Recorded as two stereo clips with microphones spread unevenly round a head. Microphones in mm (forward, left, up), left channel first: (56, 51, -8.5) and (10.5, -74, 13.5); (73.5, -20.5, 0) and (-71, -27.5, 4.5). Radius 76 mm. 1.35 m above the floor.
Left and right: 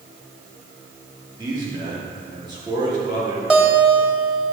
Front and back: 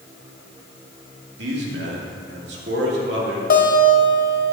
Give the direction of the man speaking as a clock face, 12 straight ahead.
6 o'clock.